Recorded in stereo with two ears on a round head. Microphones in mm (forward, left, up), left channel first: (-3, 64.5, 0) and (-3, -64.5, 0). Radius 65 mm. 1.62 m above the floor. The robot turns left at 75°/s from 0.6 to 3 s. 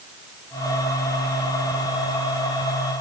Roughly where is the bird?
I don't hear a bird.